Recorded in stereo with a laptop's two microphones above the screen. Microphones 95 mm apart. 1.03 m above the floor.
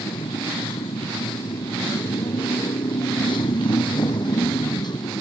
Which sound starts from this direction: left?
A motorcycle, at 0.0 s.